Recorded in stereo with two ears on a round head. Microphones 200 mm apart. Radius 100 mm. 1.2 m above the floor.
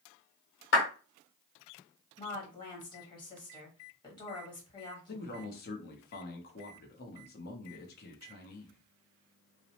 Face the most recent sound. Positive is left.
turn(degrees=45)  # may be behind; listen again after turning